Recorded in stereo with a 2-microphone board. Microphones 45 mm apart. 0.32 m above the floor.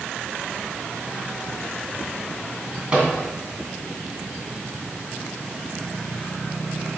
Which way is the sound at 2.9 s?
25° right (ahead or behind).